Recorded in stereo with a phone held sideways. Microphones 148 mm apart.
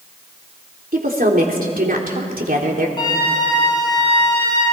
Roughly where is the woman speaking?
Right.